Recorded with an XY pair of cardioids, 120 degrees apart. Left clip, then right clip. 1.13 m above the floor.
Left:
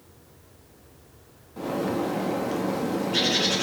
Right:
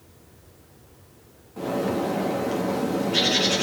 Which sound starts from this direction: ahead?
A bird, at 1.6 s.